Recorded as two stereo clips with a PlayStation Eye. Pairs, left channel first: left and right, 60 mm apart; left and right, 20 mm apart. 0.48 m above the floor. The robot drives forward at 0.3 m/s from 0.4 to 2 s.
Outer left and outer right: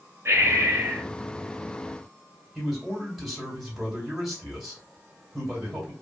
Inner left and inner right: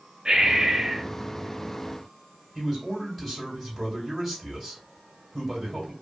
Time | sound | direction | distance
0.2 | breathing | 50° right (ahead or behind) | 0.9 m
2.5 | a man speaking | 5° right (ahead or behind) | 2 m